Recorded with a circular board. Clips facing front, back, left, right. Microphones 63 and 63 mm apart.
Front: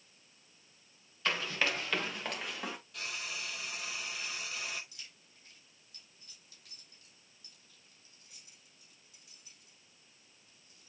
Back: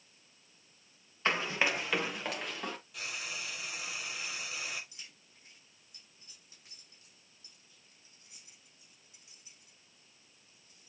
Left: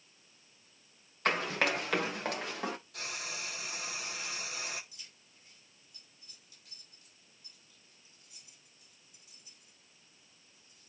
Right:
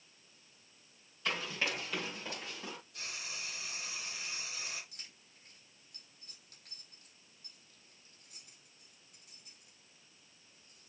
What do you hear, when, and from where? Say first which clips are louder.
1.2 s running footsteps: back 3 dB, left 6 dB; 120° left, 2.0 m; by 2.8 s 85° left, 2.5 m
2.9 s frying: even, left 4 dB; 95° left, 2 m
4.9 s keys jangling: even, right 1 dB; 115° right, 6 m